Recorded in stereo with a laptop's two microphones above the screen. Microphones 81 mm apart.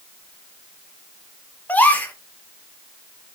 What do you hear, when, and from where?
1.7 s a gasp: 20° left (ahead or behind), 0.6 m